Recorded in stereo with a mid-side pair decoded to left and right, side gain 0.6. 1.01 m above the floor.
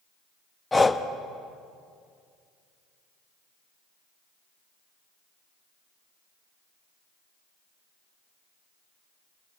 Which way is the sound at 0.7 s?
15° left.